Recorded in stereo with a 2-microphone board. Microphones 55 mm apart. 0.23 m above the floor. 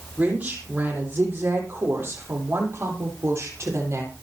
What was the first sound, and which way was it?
A woman speaking, 30° right (ahead or behind).